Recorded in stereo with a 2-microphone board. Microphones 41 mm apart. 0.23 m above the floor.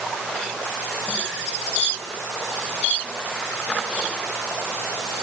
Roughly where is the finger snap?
No finger snap in this recording.